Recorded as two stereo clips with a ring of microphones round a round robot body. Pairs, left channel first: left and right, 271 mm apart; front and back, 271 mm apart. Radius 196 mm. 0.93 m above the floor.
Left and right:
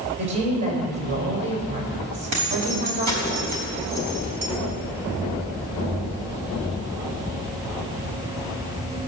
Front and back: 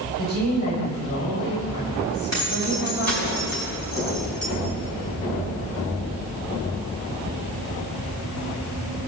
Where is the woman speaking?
70° right, 5 m.